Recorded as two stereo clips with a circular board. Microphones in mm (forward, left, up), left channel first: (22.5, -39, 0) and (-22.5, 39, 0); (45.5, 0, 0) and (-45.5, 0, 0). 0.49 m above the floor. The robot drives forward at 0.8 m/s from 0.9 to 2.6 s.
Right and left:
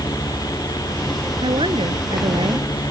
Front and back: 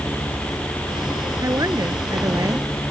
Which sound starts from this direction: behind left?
A woman speaking, at 1.4 s.